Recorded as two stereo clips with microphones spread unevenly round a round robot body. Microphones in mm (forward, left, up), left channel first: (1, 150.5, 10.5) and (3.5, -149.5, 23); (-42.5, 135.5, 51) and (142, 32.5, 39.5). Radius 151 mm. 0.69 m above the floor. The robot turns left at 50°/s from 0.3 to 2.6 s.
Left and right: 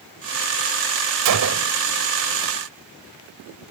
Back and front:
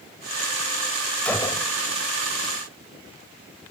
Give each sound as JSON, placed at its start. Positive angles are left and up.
{"t": 1.2, "sound": "a gunshot", "azimuth_deg": -125}